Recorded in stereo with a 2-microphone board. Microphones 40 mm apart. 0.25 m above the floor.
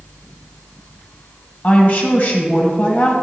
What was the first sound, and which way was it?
A woman speaking, 40° left (ahead or behind).